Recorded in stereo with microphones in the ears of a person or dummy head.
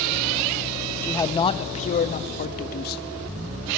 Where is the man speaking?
10° left (ahead or behind), 1.0 m; by 3.0 s 55° left (ahead or behind), 2 m.